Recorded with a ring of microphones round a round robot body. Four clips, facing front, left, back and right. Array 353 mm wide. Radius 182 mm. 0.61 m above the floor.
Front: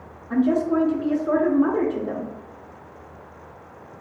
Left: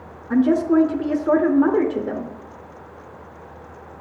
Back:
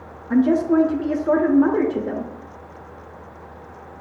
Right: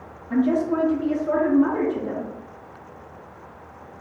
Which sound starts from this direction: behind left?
A woman speaking, at 0.3 s.